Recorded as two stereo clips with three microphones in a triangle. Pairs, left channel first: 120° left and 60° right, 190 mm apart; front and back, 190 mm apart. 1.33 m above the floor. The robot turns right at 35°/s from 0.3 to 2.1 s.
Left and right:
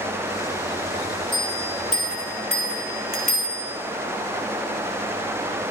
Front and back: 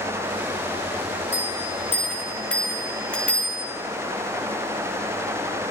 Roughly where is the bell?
Ahead left.